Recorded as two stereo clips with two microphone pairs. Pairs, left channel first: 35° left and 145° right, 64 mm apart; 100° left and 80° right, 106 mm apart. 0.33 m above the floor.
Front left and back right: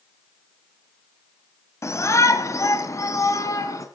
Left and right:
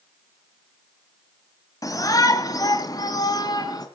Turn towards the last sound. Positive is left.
turn(degrees=55)